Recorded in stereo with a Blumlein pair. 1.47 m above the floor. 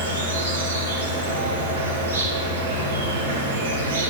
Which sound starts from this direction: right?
An insect, at 0.0 s.